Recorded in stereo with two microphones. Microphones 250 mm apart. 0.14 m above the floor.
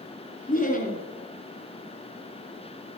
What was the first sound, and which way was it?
Laughter, 35° left (ahead or behind).